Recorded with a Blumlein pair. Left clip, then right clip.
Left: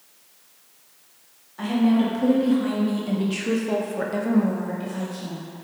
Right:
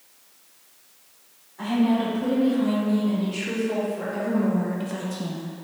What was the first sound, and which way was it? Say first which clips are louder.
A woman speaking: left 1 dB; 65° left.